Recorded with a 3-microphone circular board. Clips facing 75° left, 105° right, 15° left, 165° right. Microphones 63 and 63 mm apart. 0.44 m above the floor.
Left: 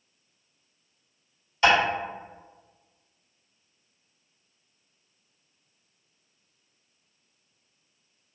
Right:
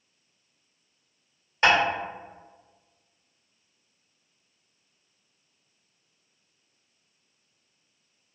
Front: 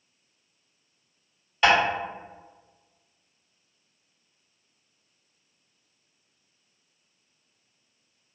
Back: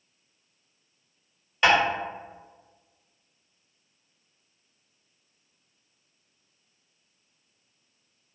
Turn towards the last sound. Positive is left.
turn(degrees=-75)